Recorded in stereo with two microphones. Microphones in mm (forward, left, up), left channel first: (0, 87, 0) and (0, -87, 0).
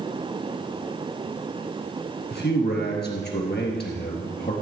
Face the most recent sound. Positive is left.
turn(degrees=65)  # may be behind; listen again after turning